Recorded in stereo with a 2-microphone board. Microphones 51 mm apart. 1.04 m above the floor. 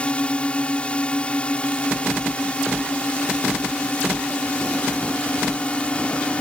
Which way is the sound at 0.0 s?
25° left (ahead or behind).